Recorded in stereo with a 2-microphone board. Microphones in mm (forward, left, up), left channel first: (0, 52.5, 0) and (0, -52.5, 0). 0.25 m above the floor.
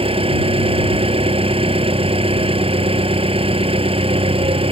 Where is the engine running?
65° right (ahead or behind).